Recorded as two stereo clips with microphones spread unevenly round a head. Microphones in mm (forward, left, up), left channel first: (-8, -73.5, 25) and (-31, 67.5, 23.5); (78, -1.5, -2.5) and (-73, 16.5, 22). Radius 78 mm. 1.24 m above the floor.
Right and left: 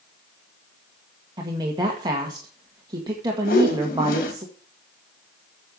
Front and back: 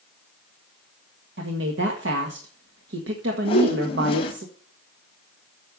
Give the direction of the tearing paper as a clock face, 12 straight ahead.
No tearing paper in this recording.